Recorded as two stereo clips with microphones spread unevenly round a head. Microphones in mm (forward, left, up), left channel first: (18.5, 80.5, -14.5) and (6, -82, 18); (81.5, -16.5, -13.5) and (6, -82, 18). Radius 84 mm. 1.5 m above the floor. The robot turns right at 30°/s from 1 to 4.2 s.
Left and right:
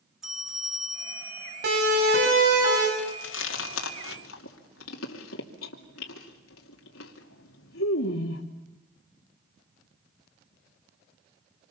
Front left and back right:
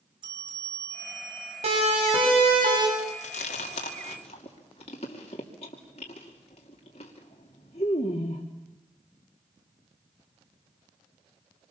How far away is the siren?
About 7 m.